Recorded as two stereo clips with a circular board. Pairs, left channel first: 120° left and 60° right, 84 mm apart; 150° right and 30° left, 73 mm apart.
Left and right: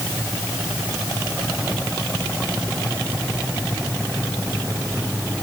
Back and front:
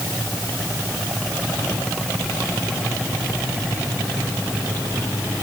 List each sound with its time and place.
Only background noise.